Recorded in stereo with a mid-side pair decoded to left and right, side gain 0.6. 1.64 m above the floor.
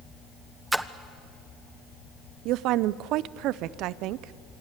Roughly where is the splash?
Ahead.